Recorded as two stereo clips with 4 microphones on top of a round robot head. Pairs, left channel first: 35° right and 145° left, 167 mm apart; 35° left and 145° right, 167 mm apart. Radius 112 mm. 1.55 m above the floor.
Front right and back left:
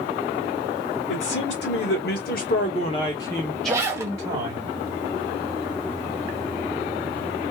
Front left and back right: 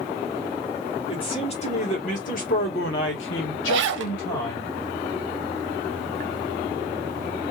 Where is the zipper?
140° right, 0.7 m.